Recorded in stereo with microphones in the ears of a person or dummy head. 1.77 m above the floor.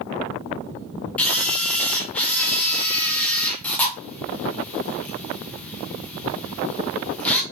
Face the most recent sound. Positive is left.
turn(degrees=10)  # may be behind; listen again after turning